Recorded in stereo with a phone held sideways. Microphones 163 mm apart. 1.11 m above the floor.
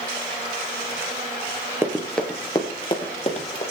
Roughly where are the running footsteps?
Centre.